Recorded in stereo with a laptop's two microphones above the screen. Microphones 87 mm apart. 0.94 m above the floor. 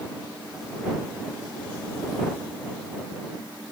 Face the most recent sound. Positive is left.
No sound to turn to.